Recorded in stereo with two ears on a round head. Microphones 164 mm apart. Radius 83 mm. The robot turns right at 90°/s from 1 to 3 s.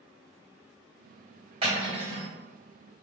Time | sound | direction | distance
1.6 | cutlery clinking | 145° right | 1.7 m